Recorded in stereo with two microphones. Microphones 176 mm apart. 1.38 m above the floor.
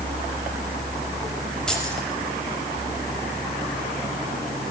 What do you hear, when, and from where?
1.7 s keys jangling: 5° left (ahead or behind), 5.5 m